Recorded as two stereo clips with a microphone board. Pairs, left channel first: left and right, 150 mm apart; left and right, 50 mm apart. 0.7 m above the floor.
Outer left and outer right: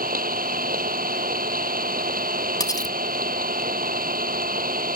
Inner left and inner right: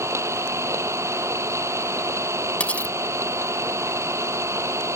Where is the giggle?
I don't hear a giggle.